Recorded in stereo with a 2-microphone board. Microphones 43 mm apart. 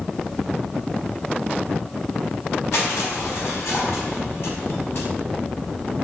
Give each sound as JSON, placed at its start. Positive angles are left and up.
{"t": 2.7, "sound": "crushing", "side_deg": 65, "distance_m": 5.0}